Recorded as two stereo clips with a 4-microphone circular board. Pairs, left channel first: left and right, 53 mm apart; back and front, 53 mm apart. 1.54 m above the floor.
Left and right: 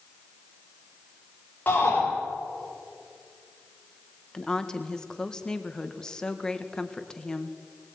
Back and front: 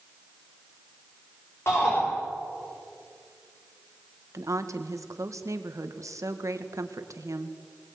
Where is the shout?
145° left, 6 m.